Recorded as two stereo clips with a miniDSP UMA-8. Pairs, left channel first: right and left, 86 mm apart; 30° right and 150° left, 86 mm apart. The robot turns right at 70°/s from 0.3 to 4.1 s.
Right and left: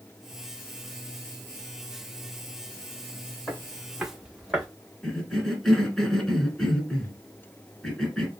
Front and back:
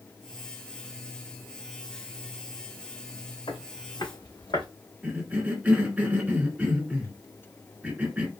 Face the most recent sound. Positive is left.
turn(degrees=-165)